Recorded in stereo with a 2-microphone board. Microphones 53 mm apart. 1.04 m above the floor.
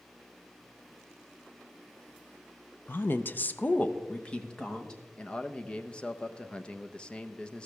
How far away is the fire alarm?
No fire alarm in this recording.